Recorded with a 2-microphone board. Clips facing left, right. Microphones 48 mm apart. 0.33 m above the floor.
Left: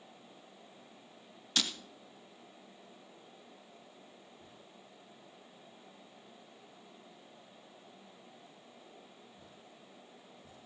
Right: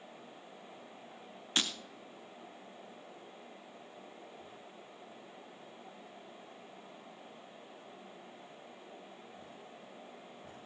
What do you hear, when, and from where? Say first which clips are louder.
1.6 s breaking glass: even; 30° right (ahead or behind), 2 m